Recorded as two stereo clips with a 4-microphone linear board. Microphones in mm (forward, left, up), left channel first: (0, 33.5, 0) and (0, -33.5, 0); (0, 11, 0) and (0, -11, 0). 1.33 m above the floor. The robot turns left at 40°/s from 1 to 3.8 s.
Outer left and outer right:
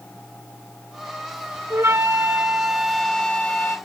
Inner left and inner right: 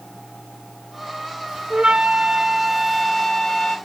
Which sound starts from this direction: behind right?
A flute, at 1.7 s.